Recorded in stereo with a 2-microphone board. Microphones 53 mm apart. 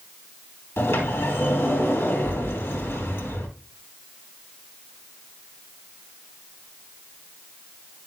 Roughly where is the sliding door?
Left.